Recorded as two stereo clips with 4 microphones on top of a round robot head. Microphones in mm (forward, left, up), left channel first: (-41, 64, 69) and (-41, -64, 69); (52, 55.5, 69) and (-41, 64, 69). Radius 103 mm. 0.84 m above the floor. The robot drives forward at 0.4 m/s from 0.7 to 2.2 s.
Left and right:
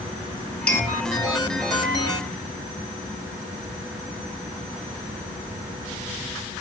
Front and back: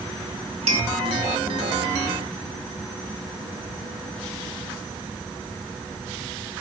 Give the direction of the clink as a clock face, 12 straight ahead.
6 o'clock.